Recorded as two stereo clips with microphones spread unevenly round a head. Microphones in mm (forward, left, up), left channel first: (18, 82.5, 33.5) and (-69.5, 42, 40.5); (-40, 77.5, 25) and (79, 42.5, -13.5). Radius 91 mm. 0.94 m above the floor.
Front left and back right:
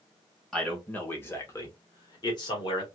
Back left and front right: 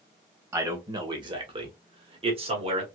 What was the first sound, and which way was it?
A man speaking, 55° right.